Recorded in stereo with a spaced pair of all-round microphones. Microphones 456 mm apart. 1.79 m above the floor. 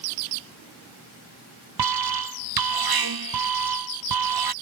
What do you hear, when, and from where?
1.8 s an alarm: 55° right (ahead or behind)